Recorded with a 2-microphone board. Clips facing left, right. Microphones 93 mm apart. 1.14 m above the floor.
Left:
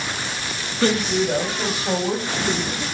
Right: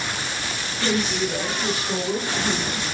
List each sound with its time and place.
0.8 s a woman speaking: 65° left (ahead or behind), 4.5 m; by 2.8 s 85° left, 6 m